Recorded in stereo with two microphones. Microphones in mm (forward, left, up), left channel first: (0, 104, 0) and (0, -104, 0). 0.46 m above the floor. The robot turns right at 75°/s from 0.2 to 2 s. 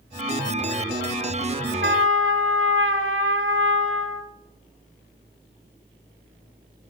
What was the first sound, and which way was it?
A trumpet, 65° right (ahead or behind).